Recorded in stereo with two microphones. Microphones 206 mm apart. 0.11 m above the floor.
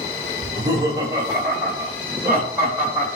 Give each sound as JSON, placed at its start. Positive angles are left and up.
{"t": 0.4, "sound": "laughter", "side_deg": -20, "distance_m": 3.5}